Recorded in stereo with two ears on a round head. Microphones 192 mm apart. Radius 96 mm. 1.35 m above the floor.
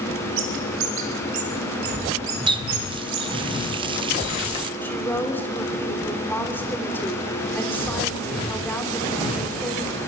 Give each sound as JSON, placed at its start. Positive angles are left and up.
{"t": 0.4, "sound": "a bird", "side_deg": -70, "distance_m": 5.0}
{"t": 2.5, "sound": "a running tap", "side_deg": -25, "distance_m": 0.8}
{"t": 4.8, "sound": "a woman speaking", "side_deg": 10, "distance_m": 3.5}